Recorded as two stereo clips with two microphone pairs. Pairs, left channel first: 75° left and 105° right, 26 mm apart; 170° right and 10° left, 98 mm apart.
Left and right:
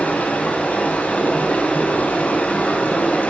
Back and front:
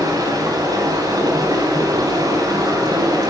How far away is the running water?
About 4.5 m.